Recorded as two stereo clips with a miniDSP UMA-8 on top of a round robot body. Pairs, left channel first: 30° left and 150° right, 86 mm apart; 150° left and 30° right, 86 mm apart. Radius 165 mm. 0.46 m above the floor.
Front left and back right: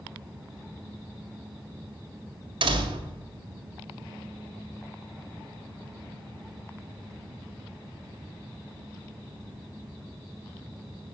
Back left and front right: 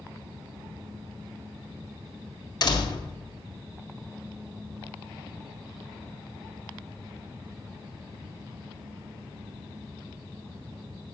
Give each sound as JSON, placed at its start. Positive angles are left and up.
{"t": 2.6, "sound": "a door slam", "azimuth_deg": -170, "distance_m": 2.0}